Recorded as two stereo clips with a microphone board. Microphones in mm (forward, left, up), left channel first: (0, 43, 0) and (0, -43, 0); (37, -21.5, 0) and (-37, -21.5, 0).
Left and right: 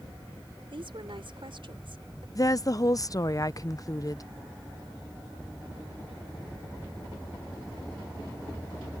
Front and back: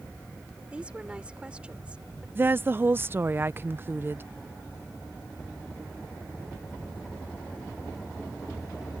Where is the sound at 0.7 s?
105° right.